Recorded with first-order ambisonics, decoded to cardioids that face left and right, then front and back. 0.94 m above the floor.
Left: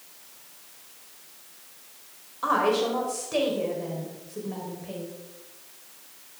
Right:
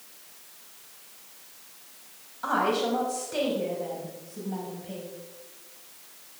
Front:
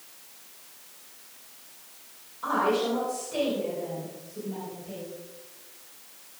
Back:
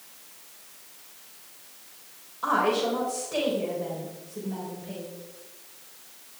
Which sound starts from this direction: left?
A woman speaking, at 2.4 s.